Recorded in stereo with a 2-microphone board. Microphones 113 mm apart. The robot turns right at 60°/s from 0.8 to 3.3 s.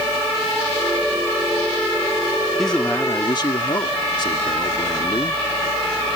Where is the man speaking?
Straight ahead; by 5.4 s 45° left.